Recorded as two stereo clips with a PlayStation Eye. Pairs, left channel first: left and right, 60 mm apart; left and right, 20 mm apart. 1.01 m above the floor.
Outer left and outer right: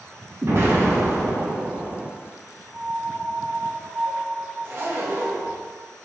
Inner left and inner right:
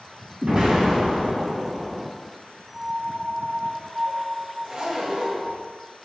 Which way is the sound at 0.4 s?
40° right (ahead or behind).